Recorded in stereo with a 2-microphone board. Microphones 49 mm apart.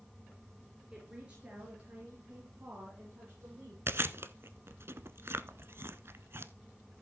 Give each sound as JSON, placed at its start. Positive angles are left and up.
{"t": 0.9, "sound": "a woman speaking", "side_deg": -15, "distance_m": 4.0}
{"t": 3.9, "sound": "chewing", "side_deg": -50, "distance_m": 0.8}